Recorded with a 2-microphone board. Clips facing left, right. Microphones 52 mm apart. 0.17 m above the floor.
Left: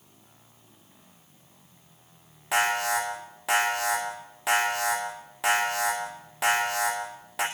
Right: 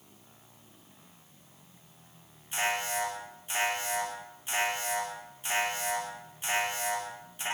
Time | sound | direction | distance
2.5 | an alarm | 75° left (ahead or behind) | 8.5 m